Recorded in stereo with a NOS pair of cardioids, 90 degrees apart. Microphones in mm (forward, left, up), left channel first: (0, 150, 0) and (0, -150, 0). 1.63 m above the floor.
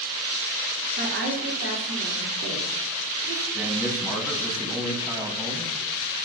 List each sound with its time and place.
1.0 s a woman speaking: 50° right, 4 m
3.5 s a man speaking: 10° right, 7 m